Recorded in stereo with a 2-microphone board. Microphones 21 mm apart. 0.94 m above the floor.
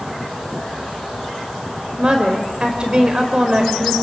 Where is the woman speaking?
35° right (ahead or behind), 4.5 m.